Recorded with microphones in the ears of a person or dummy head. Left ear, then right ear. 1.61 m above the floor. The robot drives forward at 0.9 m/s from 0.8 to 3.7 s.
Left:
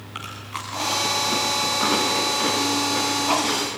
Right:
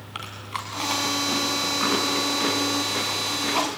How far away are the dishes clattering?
I don't hear dishes clattering.